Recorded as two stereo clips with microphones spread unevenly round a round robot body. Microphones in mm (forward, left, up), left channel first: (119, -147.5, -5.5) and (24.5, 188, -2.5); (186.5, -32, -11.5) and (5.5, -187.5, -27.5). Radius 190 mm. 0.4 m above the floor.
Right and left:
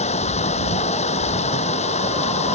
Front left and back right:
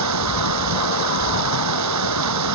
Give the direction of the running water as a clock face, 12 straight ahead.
5 o'clock.